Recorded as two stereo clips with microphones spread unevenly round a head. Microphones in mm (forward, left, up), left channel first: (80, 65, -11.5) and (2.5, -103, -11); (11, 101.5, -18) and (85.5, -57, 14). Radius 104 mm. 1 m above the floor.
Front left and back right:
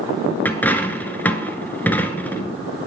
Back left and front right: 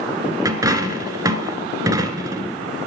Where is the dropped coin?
10° right, 1.3 m.